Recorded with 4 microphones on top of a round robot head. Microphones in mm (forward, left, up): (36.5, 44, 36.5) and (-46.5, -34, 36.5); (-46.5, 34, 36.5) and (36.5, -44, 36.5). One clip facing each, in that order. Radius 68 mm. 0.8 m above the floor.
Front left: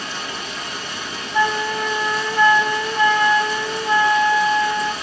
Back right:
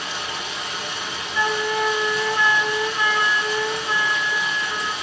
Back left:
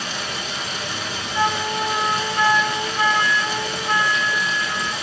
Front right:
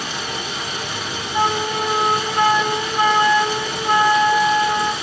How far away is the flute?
About 0.8 m.